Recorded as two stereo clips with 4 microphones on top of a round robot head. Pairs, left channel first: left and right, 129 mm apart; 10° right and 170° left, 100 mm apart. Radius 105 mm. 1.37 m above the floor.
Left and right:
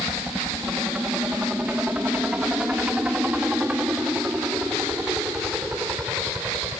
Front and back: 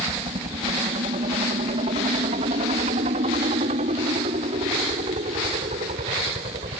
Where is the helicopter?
170° right.